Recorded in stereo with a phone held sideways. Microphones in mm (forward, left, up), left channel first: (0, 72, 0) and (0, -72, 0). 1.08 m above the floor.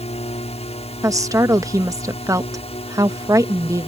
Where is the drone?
45° left (ahead or behind).